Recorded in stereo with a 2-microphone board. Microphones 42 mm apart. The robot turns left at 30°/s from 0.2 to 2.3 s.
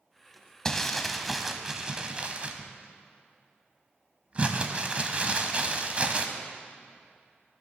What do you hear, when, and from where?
0.7 s crumpling: 15° left, 0.8 m; by 6.3 s 35° right, 0.8 m